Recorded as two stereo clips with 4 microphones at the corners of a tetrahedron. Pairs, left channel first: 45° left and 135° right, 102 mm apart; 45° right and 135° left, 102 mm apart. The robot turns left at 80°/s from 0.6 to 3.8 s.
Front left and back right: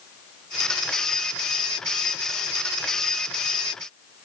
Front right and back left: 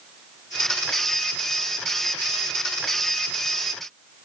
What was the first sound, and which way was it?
Only background noise.